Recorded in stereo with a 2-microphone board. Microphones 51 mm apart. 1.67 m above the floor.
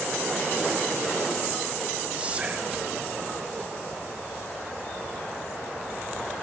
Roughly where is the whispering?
Right.